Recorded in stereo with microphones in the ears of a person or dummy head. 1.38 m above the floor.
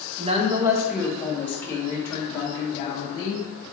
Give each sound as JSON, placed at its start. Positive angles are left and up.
{"t": 0.2, "sound": "a woman speaking", "side_deg": -40, "distance_m": 0.5}